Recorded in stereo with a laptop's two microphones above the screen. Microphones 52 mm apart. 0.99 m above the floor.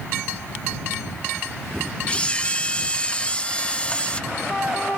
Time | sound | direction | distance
2.1 | a camera shutter | 20° left (ahead or behind) | ?